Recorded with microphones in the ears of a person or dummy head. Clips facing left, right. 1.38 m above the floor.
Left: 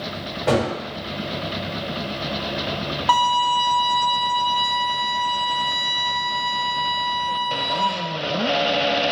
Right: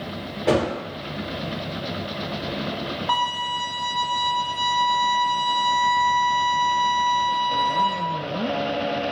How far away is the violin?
About 0.6 m.